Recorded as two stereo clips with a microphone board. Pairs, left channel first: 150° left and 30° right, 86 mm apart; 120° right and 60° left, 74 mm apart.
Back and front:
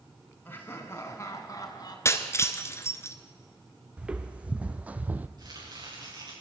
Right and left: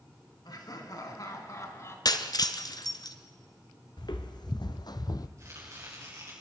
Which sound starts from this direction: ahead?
Chopping, at 5.4 s.